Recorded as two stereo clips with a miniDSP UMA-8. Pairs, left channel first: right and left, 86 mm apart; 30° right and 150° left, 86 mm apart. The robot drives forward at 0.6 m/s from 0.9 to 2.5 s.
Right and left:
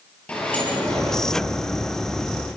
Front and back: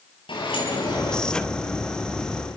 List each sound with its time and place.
0.3 s a sliding door: 15° right, 7.5 m